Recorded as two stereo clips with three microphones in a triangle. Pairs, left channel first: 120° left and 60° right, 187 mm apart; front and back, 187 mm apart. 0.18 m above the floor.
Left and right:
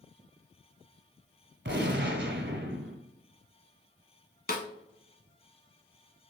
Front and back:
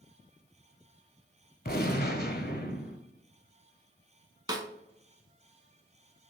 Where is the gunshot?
40° right, 0.7 m.